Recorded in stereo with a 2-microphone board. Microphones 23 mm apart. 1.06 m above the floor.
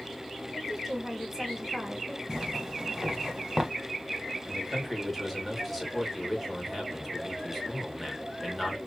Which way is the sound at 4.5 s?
5° left (ahead or behind).